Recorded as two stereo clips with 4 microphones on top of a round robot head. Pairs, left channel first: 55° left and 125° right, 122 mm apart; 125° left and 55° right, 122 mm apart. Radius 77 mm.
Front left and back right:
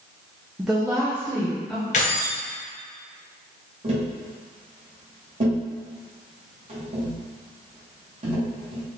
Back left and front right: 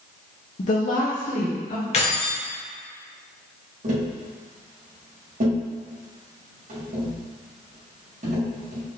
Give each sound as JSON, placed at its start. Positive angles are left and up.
{"t": 0.6, "sound": "a woman speaking", "azimuth_deg": 155, "distance_m": 0.6}
{"t": 1.9, "sound": "keys jangling", "azimuth_deg": 85, "distance_m": 0.9}
{"t": 3.8, "sound": "tapping", "azimuth_deg": -80, "distance_m": 1.8}